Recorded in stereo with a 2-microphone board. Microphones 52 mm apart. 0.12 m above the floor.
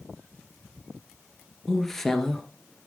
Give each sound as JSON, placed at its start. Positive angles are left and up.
{"t": 1.7, "sound": "a woman speaking", "side_deg": 5, "distance_m": 1.7}